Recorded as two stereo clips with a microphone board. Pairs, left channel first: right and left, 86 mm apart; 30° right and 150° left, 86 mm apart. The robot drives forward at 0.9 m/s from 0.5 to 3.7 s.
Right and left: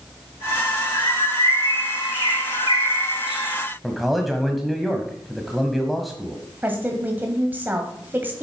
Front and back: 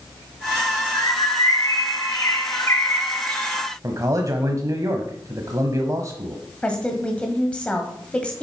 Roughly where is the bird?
Ahead right.